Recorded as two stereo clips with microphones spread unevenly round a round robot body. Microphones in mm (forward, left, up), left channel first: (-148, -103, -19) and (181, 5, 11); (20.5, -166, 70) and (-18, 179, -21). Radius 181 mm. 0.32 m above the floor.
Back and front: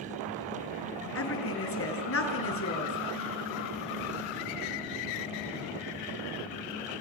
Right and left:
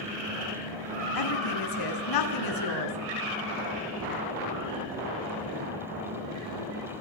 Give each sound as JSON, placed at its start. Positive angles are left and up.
{"t": 1.1, "sound": "a woman speaking", "azimuth_deg": -115, "distance_m": 5.0}